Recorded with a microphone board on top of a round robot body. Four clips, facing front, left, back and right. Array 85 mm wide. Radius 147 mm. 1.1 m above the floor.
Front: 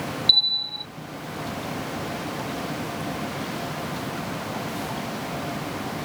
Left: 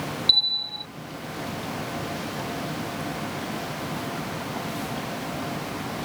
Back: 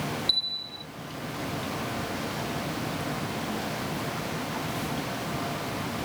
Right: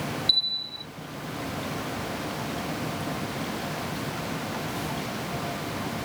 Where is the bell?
40° left.